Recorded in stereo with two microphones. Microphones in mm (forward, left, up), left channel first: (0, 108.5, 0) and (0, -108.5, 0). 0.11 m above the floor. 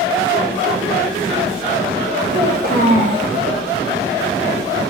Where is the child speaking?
55° right (ahead or behind), 3 m.